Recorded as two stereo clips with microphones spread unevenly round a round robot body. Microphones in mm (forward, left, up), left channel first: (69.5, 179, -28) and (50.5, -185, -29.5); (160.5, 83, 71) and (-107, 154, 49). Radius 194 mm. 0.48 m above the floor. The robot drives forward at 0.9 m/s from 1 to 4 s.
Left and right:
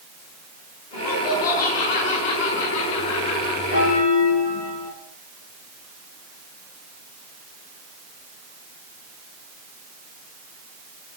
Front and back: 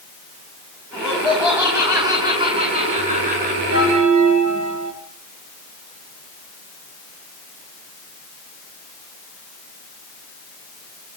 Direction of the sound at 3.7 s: 135° left.